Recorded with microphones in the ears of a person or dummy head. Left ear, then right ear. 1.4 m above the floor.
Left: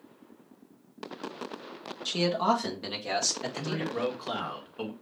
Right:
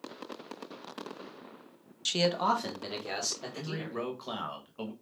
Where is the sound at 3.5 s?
Centre (ahead or behind), 1.2 m.